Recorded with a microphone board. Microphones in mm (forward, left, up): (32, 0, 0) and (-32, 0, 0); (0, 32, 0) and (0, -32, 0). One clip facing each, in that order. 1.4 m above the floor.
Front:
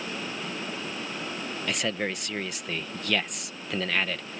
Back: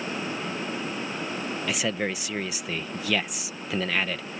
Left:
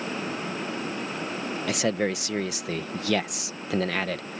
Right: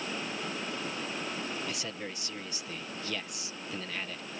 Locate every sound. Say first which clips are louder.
1.7 s a man speaking: back 1 dB, left 13 dB; 95° left